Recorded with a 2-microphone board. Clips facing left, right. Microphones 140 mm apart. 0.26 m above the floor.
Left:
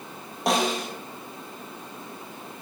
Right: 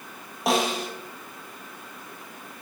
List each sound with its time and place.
0.5 s a snare drum: centre (ahead or behind), 1.9 m